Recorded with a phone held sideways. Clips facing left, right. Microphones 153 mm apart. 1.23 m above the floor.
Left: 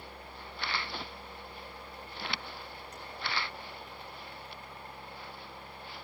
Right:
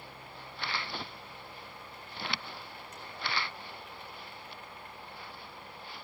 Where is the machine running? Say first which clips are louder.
Left 1 dB; 35° left (ahead or behind), 4 m.